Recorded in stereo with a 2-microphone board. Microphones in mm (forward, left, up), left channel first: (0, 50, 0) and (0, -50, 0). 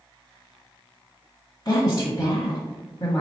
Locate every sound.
1.6 s a woman speaking: 40° left (ahead or behind), 1.2 m